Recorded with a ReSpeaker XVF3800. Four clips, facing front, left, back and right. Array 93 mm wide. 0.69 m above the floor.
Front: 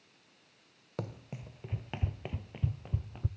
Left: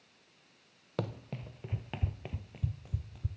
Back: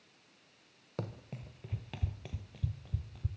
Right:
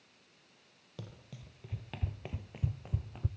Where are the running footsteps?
85° left, 1.0 m; by 3.3 s 45° right, 1.1 m.